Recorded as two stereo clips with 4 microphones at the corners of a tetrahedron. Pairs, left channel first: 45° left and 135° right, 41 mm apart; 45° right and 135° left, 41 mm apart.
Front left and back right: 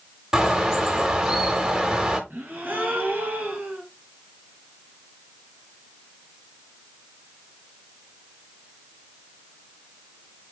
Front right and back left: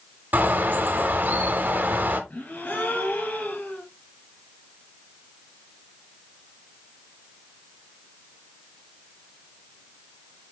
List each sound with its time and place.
0.3 s a bird: 145° left, 1.0 m
2.3 s a gasp: 85° right, 2.0 m